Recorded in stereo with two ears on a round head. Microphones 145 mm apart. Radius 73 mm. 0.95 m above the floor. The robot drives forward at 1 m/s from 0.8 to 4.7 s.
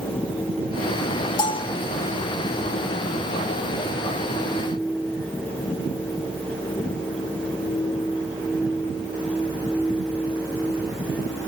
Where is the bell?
25° left (ahead or behind), 1.0 m; by 1.8 s 35° left (ahead or behind), 0.8 m.